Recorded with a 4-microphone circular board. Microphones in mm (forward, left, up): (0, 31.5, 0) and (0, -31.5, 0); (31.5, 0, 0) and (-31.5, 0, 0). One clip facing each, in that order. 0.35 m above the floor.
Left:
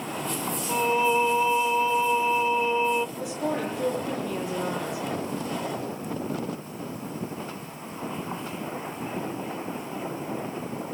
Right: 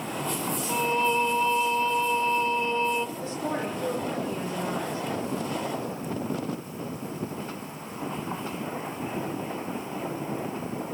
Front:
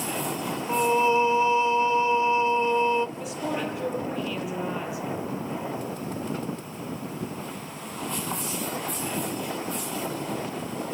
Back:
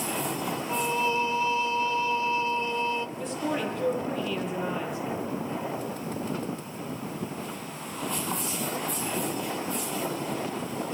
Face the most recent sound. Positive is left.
turn(degrees=80)